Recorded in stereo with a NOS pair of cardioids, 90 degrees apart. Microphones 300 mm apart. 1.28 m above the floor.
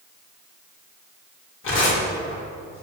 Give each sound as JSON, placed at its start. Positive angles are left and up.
{"t": 1.6, "sound": "tearing paper", "azimuth_deg": 40, "distance_m": 2.0}